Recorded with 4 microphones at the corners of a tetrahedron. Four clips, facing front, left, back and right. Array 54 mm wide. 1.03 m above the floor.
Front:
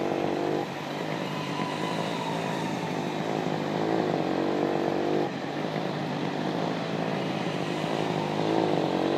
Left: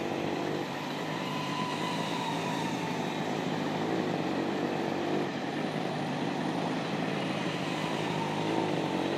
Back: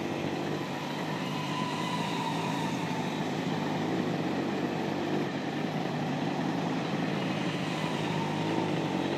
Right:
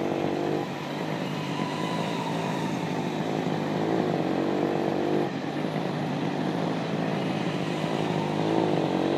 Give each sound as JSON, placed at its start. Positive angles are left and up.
{"t": 0.0, "sound": "a motorcycle", "azimuth_deg": -35}